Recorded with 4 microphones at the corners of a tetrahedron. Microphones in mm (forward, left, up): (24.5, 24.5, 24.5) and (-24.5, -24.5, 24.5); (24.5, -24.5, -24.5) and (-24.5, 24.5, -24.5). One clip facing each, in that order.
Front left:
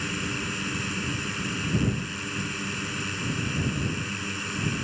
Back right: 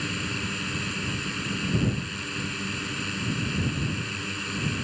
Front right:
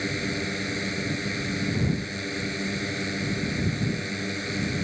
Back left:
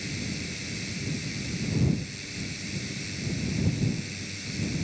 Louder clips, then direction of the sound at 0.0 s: Even, front right 7 dB; 40° right.